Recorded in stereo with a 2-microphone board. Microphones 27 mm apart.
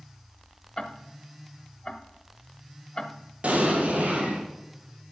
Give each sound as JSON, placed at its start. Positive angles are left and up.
{"t": 0.8, "sound": "ticking", "side_deg": 30, "distance_m": 0.9}
{"t": 3.4, "sound": "an explosion", "side_deg": -45, "distance_m": 3.0}